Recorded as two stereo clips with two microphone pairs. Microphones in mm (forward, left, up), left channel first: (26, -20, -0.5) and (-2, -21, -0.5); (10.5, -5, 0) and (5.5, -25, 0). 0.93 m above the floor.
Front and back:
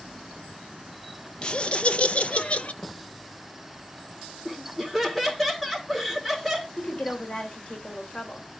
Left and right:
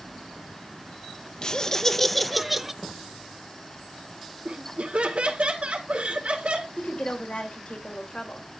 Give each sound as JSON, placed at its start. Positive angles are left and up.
{"t": 1.4, "sound": "laughter", "azimuth_deg": 35, "distance_m": 0.7}
{"t": 2.8, "sound": "a thud", "azimuth_deg": 15, "distance_m": 3.5}
{"t": 4.5, "sound": "laughter", "azimuth_deg": -85, "distance_m": 3.5}
{"t": 6.8, "sound": "a woman speaking", "azimuth_deg": 45, "distance_m": 3.5}